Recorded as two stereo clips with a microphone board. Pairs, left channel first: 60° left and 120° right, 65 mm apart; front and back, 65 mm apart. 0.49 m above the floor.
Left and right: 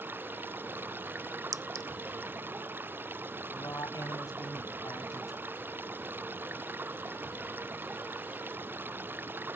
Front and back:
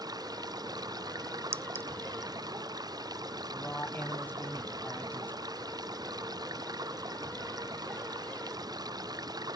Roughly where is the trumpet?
I don't hear a trumpet.